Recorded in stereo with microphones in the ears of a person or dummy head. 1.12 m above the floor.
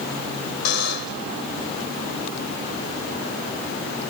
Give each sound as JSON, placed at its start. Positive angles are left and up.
{"t": 0.7, "sound": "a buzzer", "side_deg": 75}